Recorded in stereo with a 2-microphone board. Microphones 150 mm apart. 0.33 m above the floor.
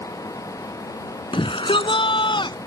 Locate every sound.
1.3 s a shout: 35° left (ahead or behind)